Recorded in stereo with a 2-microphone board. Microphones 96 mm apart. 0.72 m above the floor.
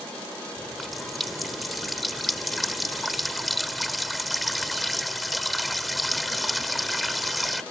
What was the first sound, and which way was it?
A running tap, centre (ahead or behind).